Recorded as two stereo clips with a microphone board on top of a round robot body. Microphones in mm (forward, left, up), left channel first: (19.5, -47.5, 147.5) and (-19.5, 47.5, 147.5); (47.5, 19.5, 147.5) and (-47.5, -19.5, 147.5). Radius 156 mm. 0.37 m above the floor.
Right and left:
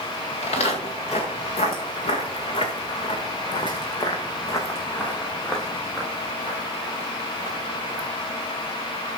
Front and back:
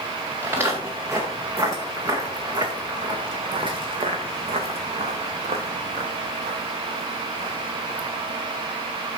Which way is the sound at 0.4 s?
85° right.